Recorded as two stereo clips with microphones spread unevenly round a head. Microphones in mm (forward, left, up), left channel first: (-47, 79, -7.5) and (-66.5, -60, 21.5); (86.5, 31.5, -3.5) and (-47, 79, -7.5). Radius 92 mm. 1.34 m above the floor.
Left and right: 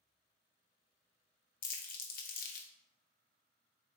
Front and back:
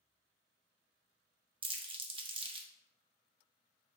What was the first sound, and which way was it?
Crumpling, 105° left.